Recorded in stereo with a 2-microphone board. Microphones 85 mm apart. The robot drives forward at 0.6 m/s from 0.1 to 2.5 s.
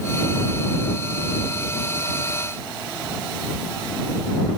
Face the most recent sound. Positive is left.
No sound to turn to.